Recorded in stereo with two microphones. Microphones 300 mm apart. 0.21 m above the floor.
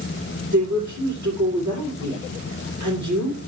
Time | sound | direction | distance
0.5 | a woman speaking | 75° right (ahead or behind) | 7.5 m